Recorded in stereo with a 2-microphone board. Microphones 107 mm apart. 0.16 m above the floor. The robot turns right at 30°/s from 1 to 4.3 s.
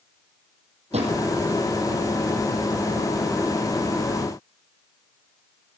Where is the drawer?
70° right (ahead or behind), 3 m; by 1.2 s 65° right (ahead or behind), 3 m.